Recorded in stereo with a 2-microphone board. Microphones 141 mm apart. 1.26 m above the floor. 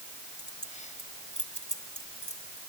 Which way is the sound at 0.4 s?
60° left (ahead or behind).